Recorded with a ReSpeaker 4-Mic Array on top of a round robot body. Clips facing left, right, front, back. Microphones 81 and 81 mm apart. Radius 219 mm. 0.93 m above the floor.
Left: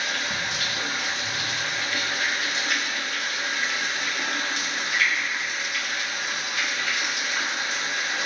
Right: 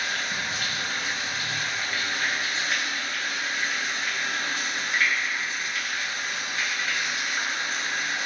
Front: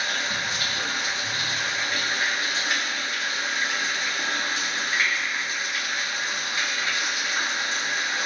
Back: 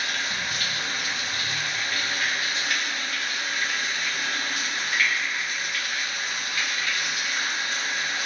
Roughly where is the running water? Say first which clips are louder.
Left 1 dB, front 2 dB; ahead left.